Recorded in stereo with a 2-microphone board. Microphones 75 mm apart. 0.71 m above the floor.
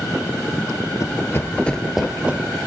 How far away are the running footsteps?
About 1.0 m.